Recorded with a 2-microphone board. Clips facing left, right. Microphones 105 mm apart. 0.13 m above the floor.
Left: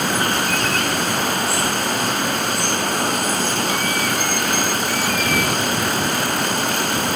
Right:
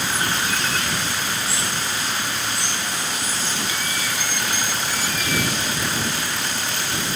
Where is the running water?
55° left (ahead or behind).